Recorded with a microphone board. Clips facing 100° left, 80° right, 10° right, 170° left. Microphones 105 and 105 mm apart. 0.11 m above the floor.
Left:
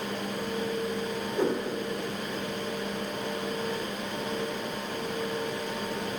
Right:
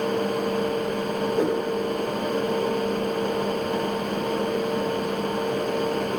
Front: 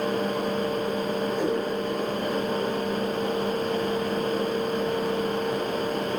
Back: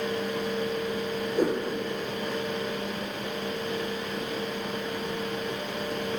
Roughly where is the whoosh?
Behind right.